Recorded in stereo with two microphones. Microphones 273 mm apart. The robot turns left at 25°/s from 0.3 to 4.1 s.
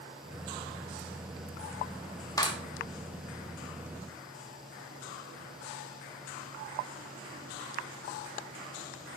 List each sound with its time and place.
2.4 s a clap: 15° left (ahead or behind), 1.4 m; by 2.6 s 20° left (ahead or behind), 1.4 m